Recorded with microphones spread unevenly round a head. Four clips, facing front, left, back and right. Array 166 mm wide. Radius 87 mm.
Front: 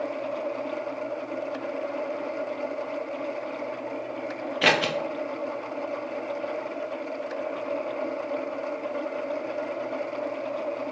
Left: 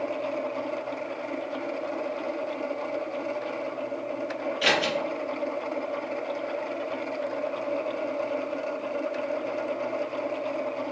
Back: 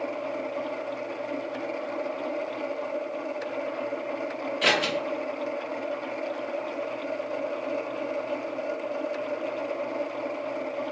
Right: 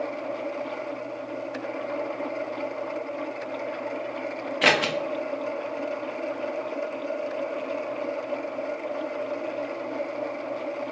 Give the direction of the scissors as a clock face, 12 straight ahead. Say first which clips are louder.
Right 3 dB, front 3 dB; 1 o'clock.